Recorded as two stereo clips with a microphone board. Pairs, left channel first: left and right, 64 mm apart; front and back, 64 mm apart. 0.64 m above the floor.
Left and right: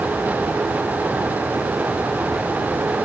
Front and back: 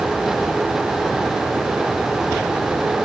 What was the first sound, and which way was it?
Only background noise.